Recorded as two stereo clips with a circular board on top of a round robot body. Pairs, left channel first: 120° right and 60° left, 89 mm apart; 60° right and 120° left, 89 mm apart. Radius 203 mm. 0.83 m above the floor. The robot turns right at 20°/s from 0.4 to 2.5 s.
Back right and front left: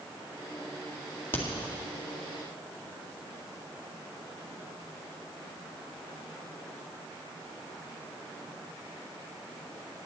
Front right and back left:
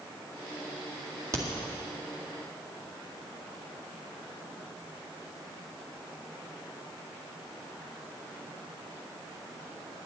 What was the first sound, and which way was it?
A crack, 175° left.